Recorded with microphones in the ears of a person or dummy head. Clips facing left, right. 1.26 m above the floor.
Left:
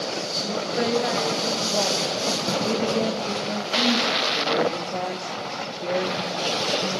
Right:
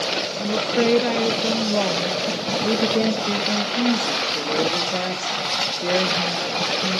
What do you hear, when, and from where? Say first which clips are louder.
0.4 s a woman speaking: right 6 dB; 45° right (ahead or behind), 1.1 m
2.6 s a woman speaking: right 4 dB; 20° right (ahead or behind), 1.6 m